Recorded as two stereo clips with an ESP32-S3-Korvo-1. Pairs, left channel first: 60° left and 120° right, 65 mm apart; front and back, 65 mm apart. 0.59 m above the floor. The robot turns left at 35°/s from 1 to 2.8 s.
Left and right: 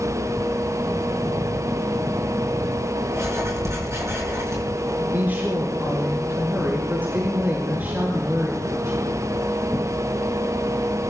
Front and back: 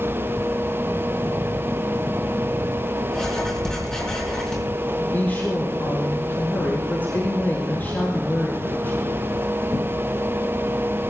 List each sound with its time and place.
3.1 s writing: 80° right, 6 m
5.0 s a woman speaking: 60° right, 7 m